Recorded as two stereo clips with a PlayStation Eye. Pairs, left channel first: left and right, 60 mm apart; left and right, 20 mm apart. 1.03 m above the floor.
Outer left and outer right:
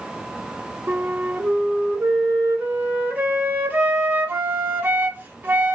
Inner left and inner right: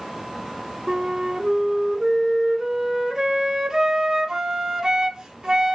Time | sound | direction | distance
0.9 | a flute | 25° right (ahead or behind) | 1.0 m